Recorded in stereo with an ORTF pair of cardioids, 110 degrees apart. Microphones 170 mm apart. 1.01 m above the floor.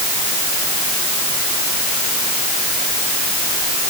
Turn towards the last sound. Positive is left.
No sound to turn to.